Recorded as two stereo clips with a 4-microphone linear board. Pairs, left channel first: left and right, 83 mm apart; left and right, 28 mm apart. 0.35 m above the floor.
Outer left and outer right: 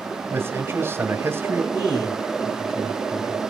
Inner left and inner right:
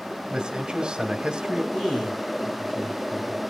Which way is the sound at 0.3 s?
30° right (ahead or behind).